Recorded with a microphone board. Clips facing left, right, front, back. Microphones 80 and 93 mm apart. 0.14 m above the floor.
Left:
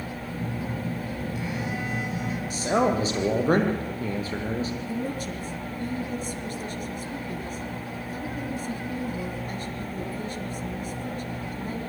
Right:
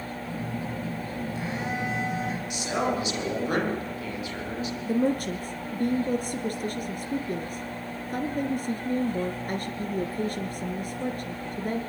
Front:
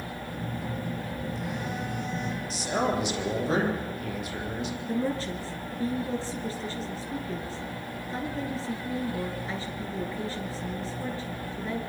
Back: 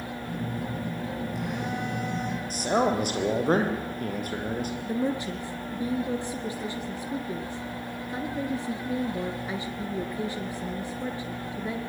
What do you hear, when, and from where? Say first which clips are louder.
0.2 s a phone buzzing: left 1 dB, back 3 dB; 155° right, 9.5 m
2.5 s a man speaking: left 6 dB, back 4 dB; 140° left, 6.5 m
4.8 s a woman speaking: right 6 dB, even; 110° right, 1.7 m